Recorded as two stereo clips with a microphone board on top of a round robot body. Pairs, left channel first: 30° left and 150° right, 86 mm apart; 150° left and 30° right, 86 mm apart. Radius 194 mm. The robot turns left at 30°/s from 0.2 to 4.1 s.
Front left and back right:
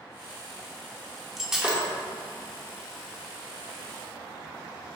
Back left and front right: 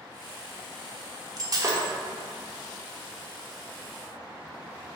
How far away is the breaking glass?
About 1.1 m.